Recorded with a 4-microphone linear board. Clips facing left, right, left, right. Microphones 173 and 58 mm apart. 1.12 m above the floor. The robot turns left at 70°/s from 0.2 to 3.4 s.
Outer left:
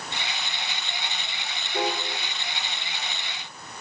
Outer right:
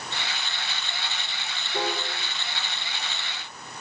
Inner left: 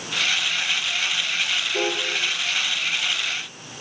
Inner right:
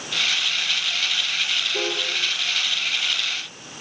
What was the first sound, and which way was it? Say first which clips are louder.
A piano: outer left 2 dB, inner left 4 dB; 20° right (ahead or behind).